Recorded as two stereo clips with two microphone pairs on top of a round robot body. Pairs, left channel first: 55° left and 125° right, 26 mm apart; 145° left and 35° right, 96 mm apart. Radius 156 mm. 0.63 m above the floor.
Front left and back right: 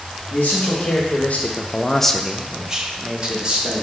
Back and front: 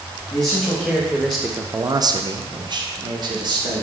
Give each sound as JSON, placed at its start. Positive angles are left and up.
{"t": 0.3, "sound": "a man speaking", "azimuth_deg": 85, "distance_m": 1.1}